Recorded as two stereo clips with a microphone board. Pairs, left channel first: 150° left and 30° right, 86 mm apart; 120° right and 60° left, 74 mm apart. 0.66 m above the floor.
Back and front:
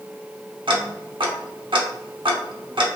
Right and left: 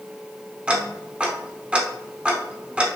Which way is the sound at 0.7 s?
15° right.